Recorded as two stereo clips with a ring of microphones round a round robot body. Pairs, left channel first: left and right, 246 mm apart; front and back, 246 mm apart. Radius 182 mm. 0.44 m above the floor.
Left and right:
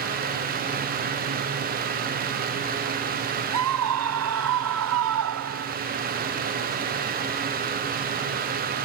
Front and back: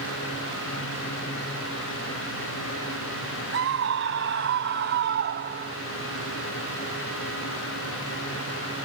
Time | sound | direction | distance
3.5 | a scream | 125° right | ?